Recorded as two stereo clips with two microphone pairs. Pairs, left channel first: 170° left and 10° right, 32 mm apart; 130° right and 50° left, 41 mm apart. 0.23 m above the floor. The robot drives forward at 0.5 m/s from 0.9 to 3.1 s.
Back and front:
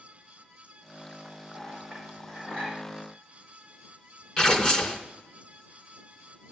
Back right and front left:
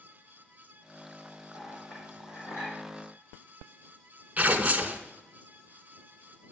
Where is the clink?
130° right, 5.5 m; by 2.8 s 135° right, 6 m.